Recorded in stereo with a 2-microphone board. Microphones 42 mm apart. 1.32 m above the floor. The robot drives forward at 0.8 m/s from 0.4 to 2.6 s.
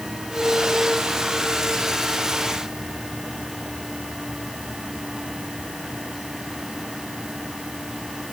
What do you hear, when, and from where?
Only background noise.